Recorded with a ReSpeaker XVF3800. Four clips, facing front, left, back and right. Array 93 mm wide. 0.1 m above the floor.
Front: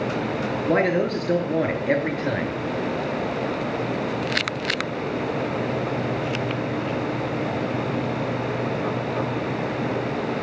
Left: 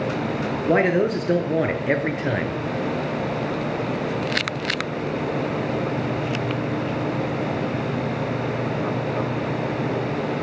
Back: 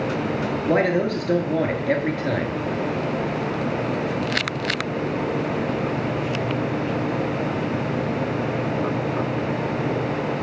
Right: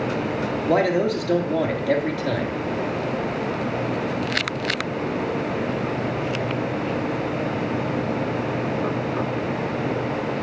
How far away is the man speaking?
About 1.2 m.